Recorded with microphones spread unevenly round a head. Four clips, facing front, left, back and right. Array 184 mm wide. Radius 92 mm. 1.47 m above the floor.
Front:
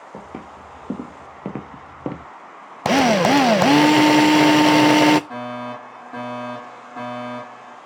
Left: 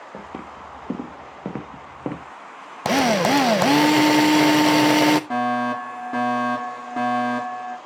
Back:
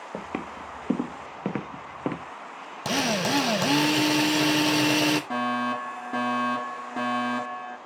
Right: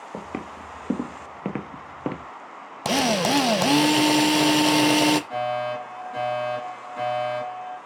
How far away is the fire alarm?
About 7 m.